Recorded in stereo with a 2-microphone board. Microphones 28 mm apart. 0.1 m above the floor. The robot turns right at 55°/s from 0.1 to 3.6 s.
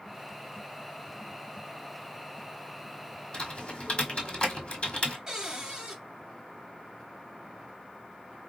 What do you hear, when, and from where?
3.3 s typing on a keyboard: 30° left (ahead or behind), 1.2 m; by 5.2 s 40° left (ahead or behind), 1.2 m
5.3 s a cupboard door: 20° right (ahead or behind), 1.4 m